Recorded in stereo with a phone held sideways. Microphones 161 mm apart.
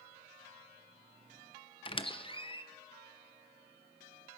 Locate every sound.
1.9 s a squeak: 30° left (ahead or behind), 0.5 m